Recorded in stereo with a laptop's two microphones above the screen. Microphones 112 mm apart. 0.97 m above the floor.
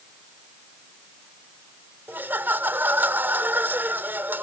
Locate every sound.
2.1 s laughter: 15° right (ahead or behind)